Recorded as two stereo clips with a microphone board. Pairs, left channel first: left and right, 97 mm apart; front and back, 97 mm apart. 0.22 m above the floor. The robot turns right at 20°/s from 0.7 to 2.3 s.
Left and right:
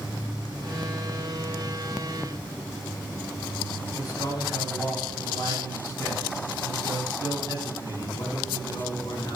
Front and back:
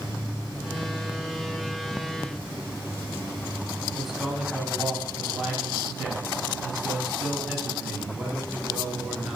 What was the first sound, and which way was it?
A man speaking, 95° left.